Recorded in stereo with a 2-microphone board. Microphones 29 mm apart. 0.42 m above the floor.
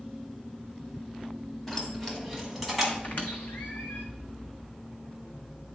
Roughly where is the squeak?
Left.